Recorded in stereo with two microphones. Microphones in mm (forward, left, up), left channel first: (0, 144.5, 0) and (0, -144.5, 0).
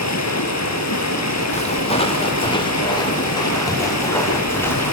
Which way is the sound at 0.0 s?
60° left (ahead or behind).